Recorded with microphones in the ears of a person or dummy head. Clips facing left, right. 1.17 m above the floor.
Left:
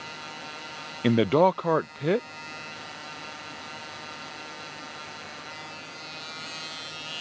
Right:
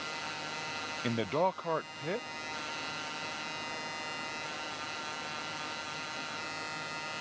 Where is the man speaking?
60° left (ahead or behind).